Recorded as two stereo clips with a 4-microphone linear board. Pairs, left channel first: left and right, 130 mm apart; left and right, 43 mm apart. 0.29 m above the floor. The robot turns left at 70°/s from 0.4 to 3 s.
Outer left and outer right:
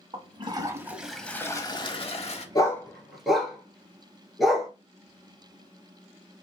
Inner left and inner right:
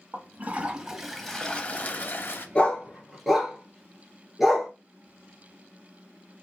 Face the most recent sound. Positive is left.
turn(degrees=0)  # may be behind; listen again after turning